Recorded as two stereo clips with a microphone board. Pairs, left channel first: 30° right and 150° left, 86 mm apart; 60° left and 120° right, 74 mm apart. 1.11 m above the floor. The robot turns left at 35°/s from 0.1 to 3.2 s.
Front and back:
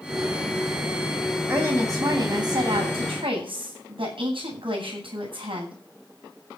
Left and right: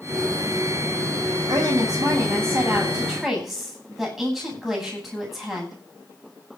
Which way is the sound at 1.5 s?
145° right.